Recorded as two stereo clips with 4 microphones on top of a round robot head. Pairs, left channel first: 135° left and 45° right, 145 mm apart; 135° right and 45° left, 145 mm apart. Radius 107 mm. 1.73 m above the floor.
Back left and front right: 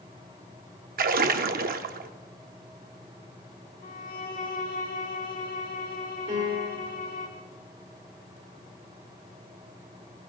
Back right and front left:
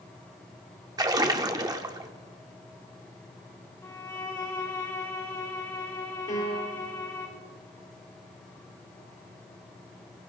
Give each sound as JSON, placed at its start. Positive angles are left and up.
{"t": 1.0, "sound": "a splash", "azimuth_deg": -20, "distance_m": 0.6}
{"t": 3.8, "sound": "a violin", "azimuth_deg": 155, "distance_m": 1.5}
{"t": 6.3, "sound": "a piano", "azimuth_deg": -90, "distance_m": 2.5}